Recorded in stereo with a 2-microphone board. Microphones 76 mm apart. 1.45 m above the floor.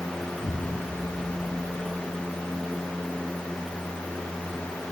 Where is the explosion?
90° left.